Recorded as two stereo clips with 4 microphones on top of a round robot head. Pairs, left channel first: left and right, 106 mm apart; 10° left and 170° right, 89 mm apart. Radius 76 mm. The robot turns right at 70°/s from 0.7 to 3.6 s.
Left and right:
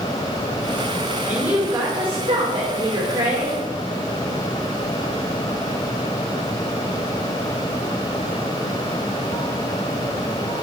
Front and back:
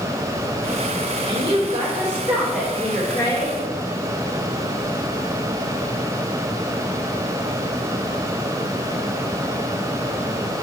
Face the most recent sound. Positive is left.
turn(degrees=-10)